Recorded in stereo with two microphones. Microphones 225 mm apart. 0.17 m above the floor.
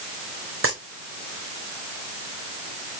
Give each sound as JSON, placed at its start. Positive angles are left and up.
{"t": 0.6, "sound": "a dropped coin", "side_deg": -70, "distance_m": 4.5}